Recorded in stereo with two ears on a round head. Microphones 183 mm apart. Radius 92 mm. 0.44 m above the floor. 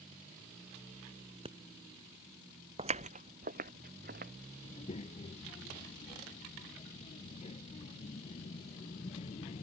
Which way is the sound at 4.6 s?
30° left (ahead or behind).